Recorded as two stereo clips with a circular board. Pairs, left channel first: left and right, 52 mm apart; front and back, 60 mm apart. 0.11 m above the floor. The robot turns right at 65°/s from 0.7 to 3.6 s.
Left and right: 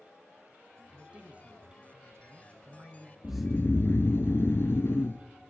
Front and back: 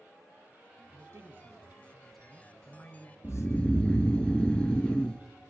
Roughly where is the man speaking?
Behind.